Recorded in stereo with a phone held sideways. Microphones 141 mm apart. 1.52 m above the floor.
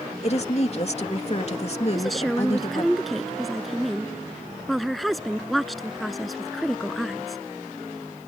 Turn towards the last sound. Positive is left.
turn(degrees=0)  # may be behind; listen again after turning